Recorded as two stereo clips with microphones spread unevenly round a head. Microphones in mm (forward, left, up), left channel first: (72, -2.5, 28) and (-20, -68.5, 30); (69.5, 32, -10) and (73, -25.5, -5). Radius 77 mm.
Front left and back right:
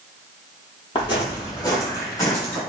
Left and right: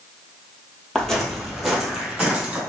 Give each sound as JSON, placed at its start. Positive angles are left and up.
{"t": 0.9, "sound": "footsteps", "azimuth_deg": 15, "distance_m": 1.6}